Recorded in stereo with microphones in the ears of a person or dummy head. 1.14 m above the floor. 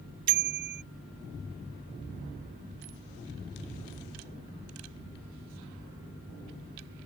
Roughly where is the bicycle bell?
Right.